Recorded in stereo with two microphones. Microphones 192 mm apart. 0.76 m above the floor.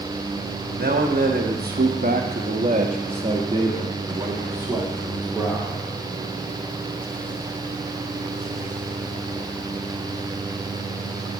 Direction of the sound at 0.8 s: 55° right (ahead or behind).